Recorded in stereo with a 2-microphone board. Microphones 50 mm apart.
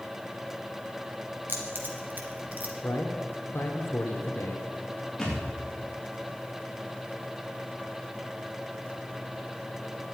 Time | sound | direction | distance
1.5 | keys jangling | 40° right (ahead or behind) | 2.5 m
2.8 | a man speaking | 50° left (ahead or behind) | 2.5 m
5.2 | a thud | 5° left (ahead or behind) | 7 m